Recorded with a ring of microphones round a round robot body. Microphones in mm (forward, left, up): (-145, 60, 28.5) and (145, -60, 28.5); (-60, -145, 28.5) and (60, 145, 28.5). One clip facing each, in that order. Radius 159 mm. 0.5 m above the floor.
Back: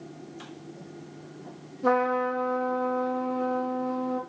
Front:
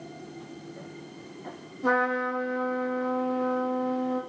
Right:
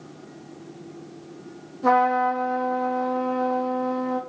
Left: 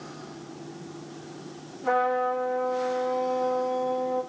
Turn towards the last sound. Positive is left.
turn(degrees=-110)